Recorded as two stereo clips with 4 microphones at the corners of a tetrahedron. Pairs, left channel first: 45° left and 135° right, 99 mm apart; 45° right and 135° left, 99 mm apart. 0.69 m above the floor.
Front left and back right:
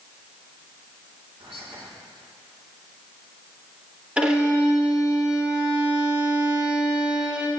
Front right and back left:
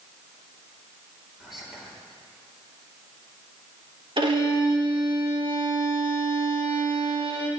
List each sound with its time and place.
1.4 s whispering: 140° right, 2 m
4.2 s a violin: 150° left, 1.1 m